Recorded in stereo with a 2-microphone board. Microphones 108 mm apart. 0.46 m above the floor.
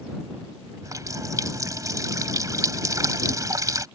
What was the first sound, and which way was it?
A running tap, 30° right (ahead or behind).